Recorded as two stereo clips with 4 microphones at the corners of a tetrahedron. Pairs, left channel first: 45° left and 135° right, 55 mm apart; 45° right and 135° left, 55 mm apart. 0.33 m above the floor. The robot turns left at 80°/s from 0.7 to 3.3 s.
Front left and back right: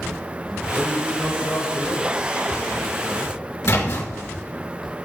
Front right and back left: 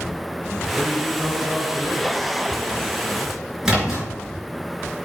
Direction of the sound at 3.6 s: 55° left.